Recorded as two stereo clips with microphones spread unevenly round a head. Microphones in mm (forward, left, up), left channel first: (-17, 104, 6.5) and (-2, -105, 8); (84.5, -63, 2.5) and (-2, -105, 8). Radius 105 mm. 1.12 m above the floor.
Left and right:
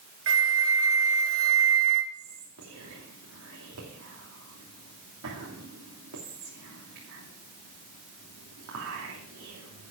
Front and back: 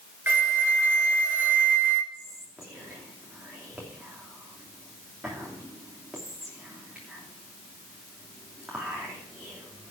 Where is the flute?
85° right, 1.7 m.